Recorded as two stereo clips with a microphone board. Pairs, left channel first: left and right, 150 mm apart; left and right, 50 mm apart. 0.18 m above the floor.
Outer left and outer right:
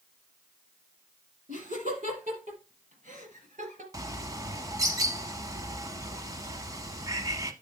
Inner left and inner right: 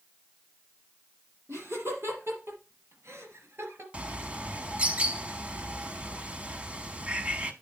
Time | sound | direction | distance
1.5 | laughter | 60° right (ahead or behind) | 6 m
3.9 | a bird | 25° right (ahead or behind) | 0.8 m